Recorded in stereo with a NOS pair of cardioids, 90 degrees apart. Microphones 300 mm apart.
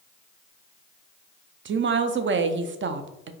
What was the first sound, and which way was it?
A woman speaking, 40° right.